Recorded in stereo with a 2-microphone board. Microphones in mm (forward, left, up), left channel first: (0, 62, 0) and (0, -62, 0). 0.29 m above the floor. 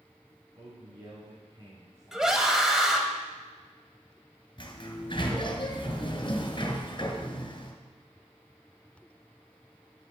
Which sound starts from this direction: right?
A man speaking, at 0.6 s.